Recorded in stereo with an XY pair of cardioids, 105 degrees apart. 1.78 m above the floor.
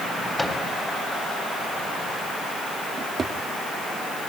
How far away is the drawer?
About 2.5 m.